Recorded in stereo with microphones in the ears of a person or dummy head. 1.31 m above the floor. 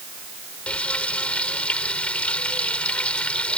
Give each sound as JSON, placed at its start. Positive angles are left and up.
{"t": 0.7, "sound": "frying", "side_deg": 10}